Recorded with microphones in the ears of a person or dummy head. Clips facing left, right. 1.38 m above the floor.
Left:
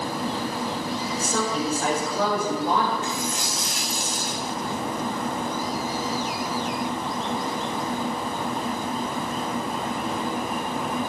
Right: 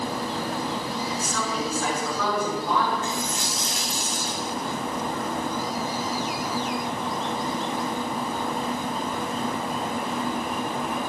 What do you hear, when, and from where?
1.1 s a woman speaking: 40° left (ahead or behind), 5 m
3.0 s a dropped coin: 35° right (ahead or behind), 2.5 m